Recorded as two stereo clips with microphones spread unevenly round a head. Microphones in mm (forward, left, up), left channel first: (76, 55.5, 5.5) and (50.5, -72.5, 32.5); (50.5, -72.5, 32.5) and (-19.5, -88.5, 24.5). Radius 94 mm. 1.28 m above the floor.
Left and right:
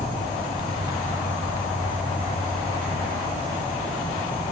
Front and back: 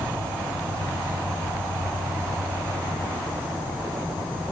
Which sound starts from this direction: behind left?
An insect, at 0.0 s.